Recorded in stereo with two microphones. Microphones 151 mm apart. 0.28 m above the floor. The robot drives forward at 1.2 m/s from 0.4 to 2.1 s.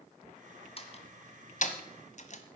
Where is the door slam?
40° left (ahead or behind), 1.8 m; by 2.4 s 50° left (ahead or behind), 1.5 m.